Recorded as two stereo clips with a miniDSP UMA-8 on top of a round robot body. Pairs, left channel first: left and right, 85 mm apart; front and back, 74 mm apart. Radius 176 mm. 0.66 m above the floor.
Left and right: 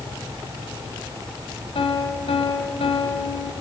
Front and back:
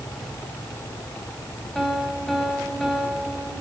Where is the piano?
85° left, 2.5 m.